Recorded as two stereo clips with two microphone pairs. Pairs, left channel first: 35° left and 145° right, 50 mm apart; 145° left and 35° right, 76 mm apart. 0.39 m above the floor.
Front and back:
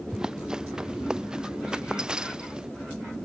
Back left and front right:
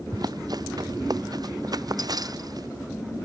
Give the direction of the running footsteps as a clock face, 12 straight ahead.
2 o'clock.